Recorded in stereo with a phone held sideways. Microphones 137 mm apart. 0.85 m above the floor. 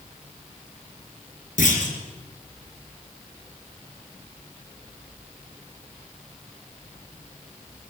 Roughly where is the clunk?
Left.